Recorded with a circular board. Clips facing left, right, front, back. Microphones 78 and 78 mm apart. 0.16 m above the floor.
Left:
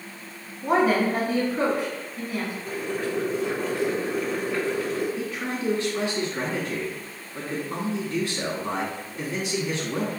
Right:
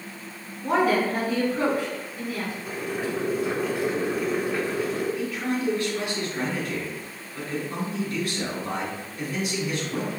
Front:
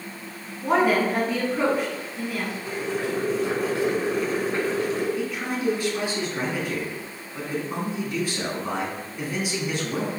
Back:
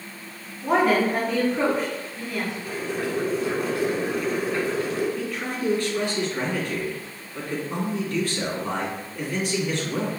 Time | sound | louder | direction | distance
0.6 | a woman speaking | left 1 dB, even | 80° left | 1.2 m
2.6 | boiling | right 1 dB, front 1 dB | 25° right | 1.3 m
5.2 | a man speaking | right 2 dB, front 1 dB | 70° left | 1.2 m